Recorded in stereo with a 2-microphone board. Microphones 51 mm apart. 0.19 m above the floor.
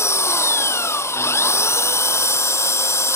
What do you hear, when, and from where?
0.0 s an engine running: 70° left (ahead or behind)